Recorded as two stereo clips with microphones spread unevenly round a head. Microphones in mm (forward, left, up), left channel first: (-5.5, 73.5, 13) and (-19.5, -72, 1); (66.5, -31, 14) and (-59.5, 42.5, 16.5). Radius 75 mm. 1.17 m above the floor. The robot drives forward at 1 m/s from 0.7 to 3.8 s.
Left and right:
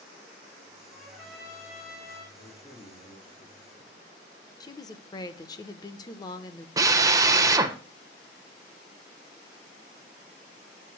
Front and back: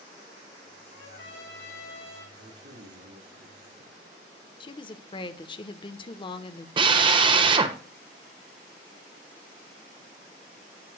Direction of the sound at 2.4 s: 140° left.